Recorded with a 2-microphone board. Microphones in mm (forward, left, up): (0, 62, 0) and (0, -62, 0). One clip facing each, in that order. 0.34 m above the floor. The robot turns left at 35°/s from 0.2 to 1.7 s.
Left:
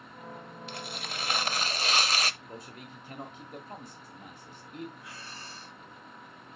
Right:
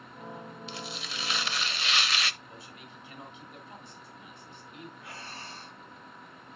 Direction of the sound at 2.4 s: 45° left (ahead or behind).